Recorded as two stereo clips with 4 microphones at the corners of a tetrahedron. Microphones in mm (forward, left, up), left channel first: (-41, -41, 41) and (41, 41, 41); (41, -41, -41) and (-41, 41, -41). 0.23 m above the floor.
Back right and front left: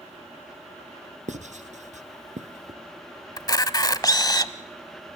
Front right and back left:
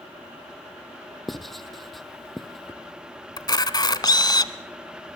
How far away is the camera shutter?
About 1.0 m.